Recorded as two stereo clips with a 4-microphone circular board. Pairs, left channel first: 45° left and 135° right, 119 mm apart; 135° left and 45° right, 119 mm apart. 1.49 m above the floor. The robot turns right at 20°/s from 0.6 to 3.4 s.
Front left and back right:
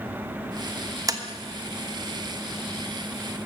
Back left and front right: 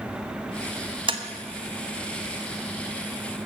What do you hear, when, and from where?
1.1 s tapping: 80° right, 1.0 m